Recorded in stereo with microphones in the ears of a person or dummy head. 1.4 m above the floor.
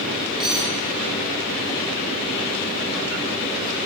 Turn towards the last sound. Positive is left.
turn(degrees=-5)  # may be behind; listen again after turning